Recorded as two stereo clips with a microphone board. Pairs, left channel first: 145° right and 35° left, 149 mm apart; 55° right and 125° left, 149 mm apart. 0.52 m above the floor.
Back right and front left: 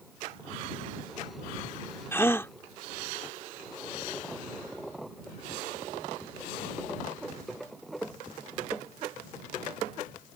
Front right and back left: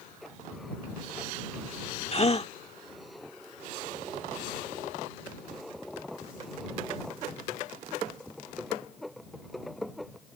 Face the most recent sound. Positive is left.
turn(degrees=-80)